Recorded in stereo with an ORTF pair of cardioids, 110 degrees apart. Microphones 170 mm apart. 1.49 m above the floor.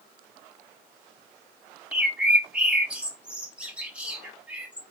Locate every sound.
1.9 s a bird: 5° right, 0.9 m